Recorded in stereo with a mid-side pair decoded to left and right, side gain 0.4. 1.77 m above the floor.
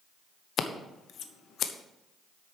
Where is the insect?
No insect in this recording.